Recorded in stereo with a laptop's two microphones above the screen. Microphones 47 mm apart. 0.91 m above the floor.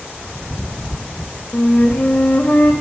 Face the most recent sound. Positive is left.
turn(degrees=40)  # may be behind; listen again after turning